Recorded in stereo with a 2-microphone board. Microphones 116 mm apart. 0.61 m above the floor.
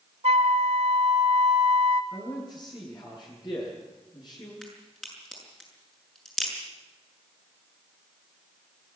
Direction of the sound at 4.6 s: 5° left (ahead or behind).